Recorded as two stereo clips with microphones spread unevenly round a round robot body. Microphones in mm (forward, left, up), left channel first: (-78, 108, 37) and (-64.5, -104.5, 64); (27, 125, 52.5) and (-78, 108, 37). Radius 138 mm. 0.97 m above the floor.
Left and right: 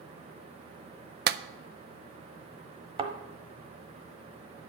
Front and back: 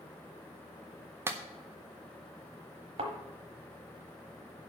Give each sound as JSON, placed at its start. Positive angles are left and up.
{"t": 1.3, "sound": "a clap", "azimuth_deg": -120, "distance_m": 0.5}
{"t": 3.0, "sound": "a thud", "azimuth_deg": -135, "distance_m": 1.0}